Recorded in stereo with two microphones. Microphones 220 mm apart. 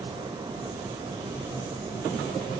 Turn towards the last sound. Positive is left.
No sound to turn to.